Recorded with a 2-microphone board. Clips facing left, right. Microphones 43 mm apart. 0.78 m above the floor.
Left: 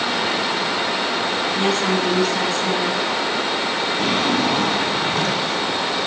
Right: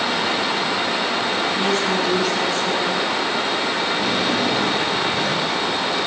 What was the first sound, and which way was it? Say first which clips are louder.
A woman speaking: left 3 dB; 60° left (ahead or behind).